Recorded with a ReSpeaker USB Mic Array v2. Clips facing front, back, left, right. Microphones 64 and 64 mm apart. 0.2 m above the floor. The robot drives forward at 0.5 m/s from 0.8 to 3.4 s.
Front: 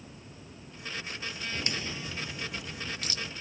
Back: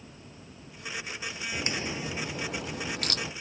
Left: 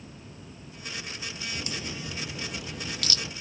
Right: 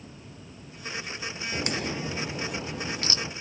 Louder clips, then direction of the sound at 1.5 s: Back 4 dB, right 9 dB; 105° right.